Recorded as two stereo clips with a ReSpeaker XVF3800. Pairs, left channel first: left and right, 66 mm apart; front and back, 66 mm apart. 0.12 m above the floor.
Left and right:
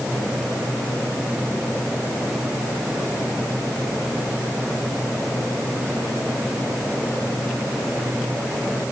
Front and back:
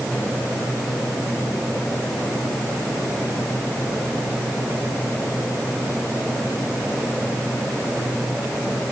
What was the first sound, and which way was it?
Only background noise.